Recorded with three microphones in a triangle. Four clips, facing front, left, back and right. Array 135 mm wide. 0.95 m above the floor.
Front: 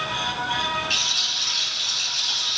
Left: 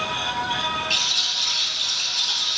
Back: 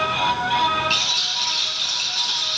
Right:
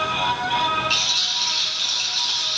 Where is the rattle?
145° right, 3.5 m.